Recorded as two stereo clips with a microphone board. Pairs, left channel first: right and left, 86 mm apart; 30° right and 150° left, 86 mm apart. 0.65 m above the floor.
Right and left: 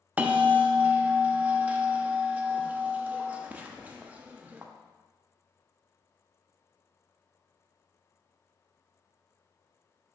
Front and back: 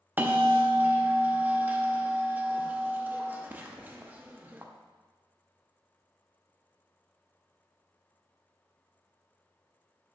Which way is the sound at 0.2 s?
130° left.